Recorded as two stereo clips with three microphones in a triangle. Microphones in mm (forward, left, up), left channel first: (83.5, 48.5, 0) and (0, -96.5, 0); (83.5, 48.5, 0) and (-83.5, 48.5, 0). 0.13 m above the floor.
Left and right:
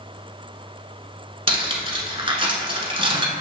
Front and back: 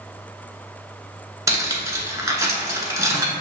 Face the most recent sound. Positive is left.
turn(degrees=-125)